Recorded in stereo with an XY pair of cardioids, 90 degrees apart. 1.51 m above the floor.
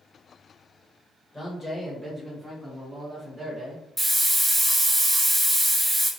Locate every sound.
1.3 s a man speaking: 20° left, 1.3 m; by 3.9 s 50° right, 1.1 m
4.0 s a hiss: 5° right, 1.3 m